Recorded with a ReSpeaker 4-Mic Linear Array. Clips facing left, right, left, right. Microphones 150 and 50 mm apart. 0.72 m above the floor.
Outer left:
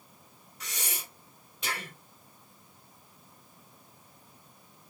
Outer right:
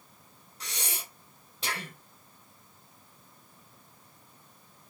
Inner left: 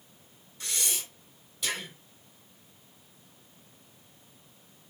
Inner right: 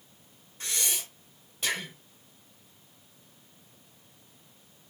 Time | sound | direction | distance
0.6 | breathing | 35° right (ahead or behind) | 2 m